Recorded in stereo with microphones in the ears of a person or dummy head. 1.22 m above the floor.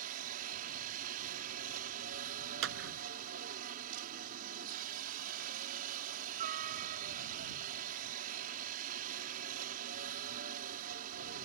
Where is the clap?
90° right.